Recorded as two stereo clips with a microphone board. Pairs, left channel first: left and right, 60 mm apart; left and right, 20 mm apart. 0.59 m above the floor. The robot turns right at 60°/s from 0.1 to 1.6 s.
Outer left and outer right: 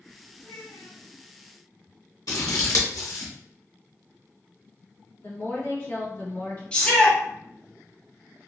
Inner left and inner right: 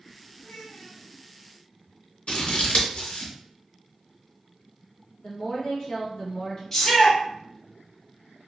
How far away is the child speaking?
About 1.4 m.